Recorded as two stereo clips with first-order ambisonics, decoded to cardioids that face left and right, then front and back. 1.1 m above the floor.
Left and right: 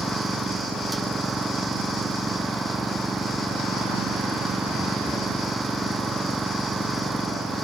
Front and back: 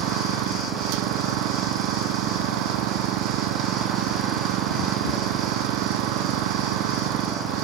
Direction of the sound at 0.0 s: 170° right.